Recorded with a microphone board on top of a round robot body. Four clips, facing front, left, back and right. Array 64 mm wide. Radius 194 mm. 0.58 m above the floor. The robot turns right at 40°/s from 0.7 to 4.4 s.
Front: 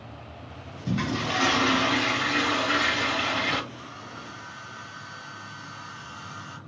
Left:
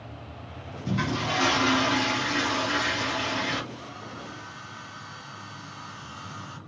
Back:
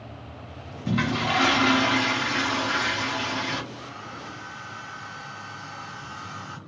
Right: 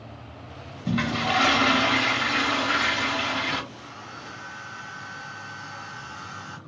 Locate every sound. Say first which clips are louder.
0.9 s a toilet flushing: right 3 dB, back 3 dB; 130° right, 1.2 m; by 3.6 s 20° right, 1.2 m
3.7 s a hair dryer: left 1 dB, back 2 dB; 170° right, 0.7 m; by 6.6 s 145° right, 0.7 m